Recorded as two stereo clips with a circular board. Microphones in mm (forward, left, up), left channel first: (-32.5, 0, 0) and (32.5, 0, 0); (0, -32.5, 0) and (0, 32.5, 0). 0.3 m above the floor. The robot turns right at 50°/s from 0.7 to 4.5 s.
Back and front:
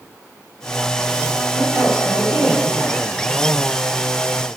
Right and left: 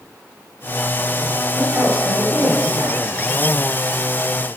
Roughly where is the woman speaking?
Ahead left.